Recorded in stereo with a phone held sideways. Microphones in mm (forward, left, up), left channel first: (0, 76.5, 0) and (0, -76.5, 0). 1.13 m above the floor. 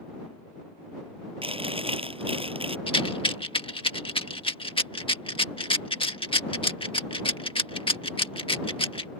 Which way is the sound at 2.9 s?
35° left (ahead or behind).